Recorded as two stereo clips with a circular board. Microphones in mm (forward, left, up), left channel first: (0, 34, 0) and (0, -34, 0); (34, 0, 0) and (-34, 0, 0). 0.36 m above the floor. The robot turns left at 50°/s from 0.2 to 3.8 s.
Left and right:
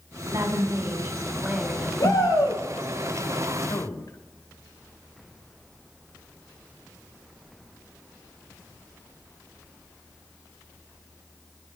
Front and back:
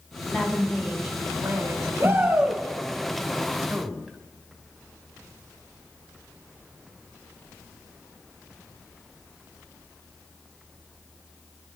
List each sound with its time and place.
0.3 s a woman speaking: 100° right, 2.5 m; by 1.9 s 175° left, 2.5 m
2.0 s a shout: 125° left, 6 m; by 2.6 s 95° left, 6 m
3.6 s a man speaking: 100° left, 1.9 m; by 4.2 s 90° left, 1.9 m